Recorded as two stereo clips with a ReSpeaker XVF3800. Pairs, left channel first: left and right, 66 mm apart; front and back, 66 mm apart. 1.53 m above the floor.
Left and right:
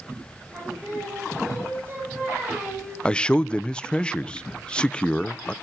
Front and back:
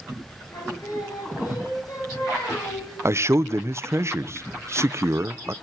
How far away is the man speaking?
About 0.5 m.